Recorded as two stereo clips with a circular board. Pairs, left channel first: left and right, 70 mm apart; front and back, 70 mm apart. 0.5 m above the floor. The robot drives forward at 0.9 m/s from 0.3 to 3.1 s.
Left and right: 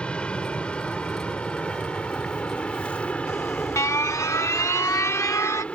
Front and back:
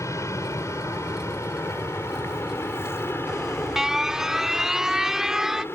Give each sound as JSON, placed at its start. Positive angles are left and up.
{"t": 0.0, "sound": "an aircraft", "azimuth_deg": 20}
{"t": 3.3, "sound": "an alarm", "azimuth_deg": 100}